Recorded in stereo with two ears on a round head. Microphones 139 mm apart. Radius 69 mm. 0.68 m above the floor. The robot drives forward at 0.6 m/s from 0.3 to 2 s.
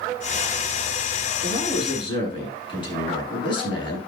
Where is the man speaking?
30° left (ahead or behind), 8 m.